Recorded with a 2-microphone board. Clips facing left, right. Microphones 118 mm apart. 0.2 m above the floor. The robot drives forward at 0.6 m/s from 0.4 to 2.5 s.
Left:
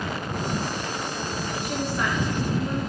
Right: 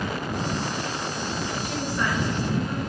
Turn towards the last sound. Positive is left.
turn(degrees=10)  # may be behind; listen again after turning